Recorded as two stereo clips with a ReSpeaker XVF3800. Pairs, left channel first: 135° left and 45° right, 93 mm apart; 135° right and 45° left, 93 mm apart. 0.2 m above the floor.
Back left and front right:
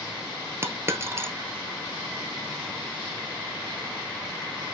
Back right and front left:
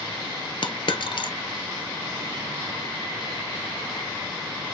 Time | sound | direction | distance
0.6 | a dropped coin | 105° right | 0.7 m